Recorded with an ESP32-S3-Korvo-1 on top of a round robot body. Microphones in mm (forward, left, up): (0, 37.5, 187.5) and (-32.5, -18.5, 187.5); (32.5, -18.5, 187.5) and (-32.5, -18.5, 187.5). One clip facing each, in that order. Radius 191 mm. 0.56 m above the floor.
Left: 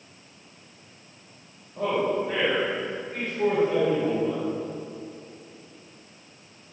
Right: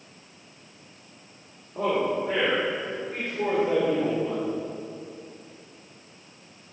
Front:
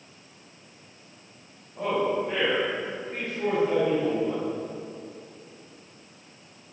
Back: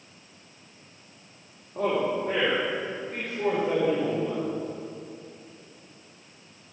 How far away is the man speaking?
About 2 m.